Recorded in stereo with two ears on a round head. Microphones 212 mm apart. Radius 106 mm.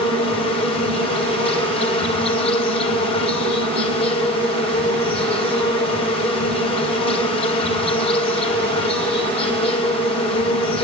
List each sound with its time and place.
0.0 s an insect: 25° left (ahead or behind), 3 m